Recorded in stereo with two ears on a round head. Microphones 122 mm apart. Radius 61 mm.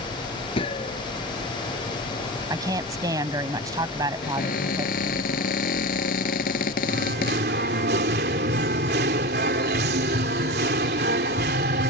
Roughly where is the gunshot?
Left.